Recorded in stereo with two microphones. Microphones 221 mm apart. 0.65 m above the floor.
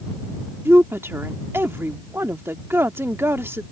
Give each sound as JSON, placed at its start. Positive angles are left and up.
{"t": 0.7, "sound": "a woman speaking", "side_deg": -10}